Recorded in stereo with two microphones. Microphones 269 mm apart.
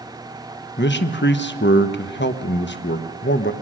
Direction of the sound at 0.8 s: 45° left (ahead or behind).